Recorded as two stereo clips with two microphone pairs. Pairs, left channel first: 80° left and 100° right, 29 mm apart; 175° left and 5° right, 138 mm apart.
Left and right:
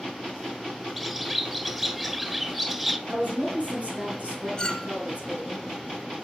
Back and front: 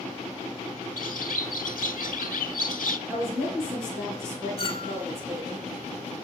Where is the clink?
140° left, 1.1 m.